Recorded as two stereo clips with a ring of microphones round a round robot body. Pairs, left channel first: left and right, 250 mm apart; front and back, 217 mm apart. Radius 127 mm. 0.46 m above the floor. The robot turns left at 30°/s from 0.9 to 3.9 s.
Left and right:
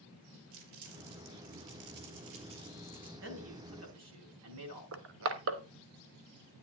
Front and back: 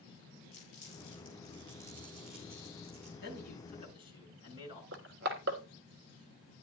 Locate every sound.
0.5 s crumpling: 50° right, 3.5 m; by 3.1 s 115° right, 3.5 m
3.2 s a man speaking: 45° right, 4.5 m; by 4.8 s 70° right, 4.5 m
4.9 s crushing: 130° right, 1.1 m